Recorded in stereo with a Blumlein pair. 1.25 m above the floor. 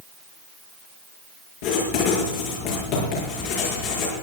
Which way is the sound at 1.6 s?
45° left.